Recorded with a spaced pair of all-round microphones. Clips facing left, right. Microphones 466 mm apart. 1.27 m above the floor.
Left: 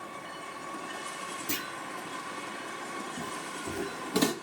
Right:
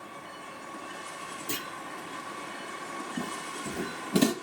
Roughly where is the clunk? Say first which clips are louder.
Even; left.